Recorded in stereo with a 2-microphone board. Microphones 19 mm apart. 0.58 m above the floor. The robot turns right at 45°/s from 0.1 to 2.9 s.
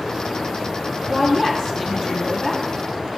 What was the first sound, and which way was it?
A woman speaking, 20° left (ahead or behind).